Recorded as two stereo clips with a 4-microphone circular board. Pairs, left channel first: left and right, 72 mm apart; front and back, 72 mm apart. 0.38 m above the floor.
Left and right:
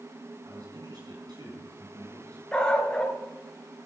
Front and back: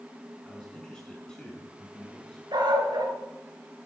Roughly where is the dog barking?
Behind.